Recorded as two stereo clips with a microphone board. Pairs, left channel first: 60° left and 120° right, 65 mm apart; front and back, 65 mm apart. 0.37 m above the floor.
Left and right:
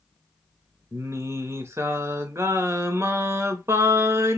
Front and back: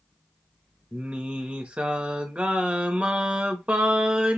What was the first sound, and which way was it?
Singing, 120° right.